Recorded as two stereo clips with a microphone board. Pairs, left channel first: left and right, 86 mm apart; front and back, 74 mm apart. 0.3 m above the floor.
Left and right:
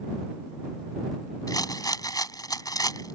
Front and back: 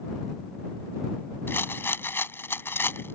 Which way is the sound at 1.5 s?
55° left.